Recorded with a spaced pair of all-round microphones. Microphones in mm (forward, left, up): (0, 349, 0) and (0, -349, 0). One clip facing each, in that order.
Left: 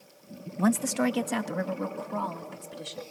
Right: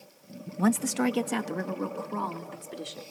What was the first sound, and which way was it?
A woman speaking, centre (ahead or behind).